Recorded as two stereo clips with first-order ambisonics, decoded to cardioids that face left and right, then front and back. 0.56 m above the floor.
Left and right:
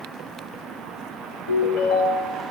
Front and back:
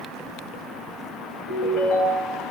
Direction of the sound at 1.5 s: 40° left.